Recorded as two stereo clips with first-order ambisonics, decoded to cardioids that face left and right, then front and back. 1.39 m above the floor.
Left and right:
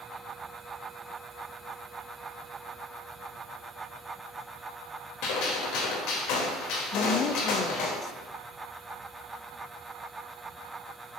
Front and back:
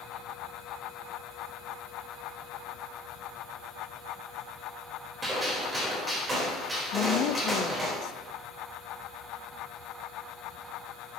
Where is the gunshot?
105° left, 3.5 m.